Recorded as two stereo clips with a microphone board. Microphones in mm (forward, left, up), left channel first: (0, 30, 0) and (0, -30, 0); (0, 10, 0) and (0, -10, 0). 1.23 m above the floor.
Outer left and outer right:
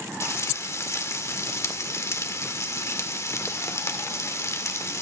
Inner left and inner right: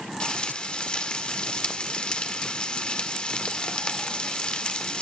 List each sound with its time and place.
0.2 s frying: 55° left (ahead or behind), 1.9 m